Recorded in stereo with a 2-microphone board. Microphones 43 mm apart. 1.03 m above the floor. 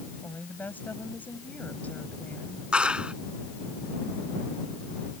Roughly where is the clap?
Right.